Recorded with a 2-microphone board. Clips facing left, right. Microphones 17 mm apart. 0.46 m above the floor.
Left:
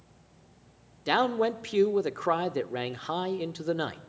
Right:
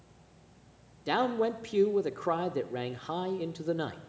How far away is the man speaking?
About 0.9 m.